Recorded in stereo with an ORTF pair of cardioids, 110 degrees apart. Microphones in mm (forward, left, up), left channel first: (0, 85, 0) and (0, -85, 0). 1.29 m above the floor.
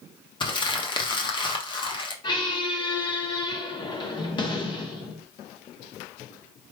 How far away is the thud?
I don't hear a thud.